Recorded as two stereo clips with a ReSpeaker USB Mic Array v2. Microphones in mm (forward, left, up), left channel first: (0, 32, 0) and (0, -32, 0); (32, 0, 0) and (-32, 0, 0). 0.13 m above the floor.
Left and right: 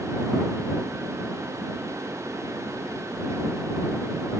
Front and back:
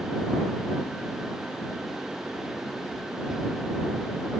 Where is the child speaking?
No child speaking in this recording.